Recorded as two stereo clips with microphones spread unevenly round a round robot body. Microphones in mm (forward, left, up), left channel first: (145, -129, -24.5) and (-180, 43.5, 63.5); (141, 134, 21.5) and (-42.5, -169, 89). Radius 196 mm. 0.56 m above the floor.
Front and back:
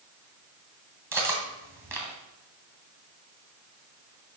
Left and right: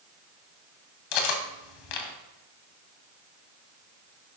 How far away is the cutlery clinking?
About 2 m.